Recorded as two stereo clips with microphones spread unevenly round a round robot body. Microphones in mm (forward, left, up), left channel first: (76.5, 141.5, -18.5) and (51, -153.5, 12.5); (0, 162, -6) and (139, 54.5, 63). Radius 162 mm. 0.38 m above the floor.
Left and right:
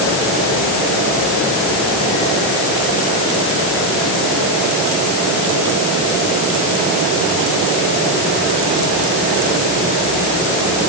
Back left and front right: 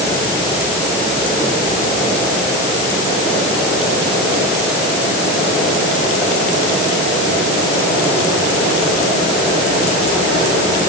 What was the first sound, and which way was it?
Only background noise.